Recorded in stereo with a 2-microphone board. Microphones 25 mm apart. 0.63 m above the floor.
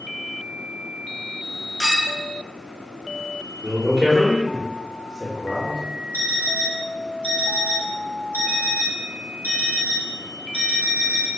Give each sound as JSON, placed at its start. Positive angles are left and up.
{"t": 1.8, "sound": "a clink", "side_deg": 5, "distance_m": 1.7}
{"t": 3.6, "sound": "a man speaking", "side_deg": -40, "distance_m": 1.3}
{"t": 6.1, "sound": "an alarm clock", "side_deg": -85, "distance_m": 0.9}